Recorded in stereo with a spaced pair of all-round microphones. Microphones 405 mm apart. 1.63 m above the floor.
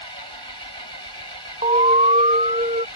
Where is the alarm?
15° right (ahead or behind).